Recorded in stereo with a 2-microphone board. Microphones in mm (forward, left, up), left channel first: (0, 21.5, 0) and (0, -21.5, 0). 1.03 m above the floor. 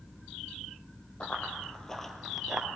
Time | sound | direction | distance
1.2 | running footsteps | 20° left (ahead or behind) | 1.7 m